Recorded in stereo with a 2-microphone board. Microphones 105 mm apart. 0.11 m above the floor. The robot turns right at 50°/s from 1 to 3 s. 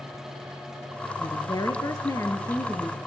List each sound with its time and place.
1.2 s a woman speaking: 75° left, 1.6 m; by 3.0 s 165° left, 1.6 m